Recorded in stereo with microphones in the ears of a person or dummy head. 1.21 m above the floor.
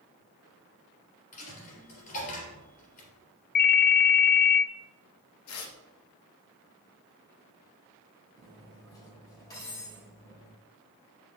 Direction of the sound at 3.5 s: 45° left (ahead or behind).